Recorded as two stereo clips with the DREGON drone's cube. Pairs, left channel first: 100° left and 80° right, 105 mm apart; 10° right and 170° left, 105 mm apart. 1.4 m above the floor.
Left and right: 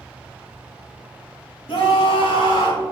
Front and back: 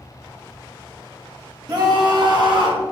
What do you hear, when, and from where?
1.7 s a scream: 125° left, 2.5 m; by 2.8 s 140° left, 3.5 m